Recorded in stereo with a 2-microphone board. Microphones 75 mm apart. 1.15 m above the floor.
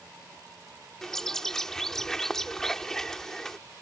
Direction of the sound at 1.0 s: 5° left (ahead or behind).